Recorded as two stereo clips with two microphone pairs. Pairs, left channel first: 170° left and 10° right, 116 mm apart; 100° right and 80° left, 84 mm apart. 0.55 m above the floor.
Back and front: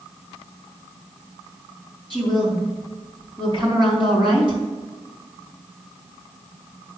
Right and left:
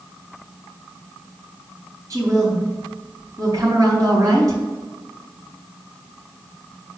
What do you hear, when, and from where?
2.1 s a woman speaking: 35° left, 3 m